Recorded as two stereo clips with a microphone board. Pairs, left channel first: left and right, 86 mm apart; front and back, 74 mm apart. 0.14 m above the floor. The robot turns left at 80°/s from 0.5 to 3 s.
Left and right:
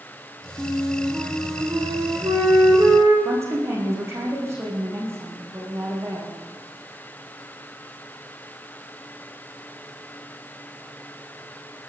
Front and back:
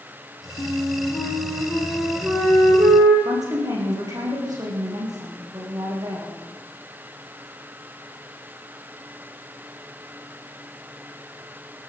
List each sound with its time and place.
0.6 s a flute: 25° left, 5 m; by 3.1 s 170° right, 5 m
3.2 s a woman speaking: 145° right, 7.5 m